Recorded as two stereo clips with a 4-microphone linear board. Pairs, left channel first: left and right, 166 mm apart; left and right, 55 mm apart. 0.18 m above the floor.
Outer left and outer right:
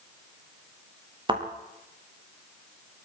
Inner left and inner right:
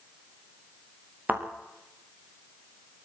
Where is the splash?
I don't hear a splash.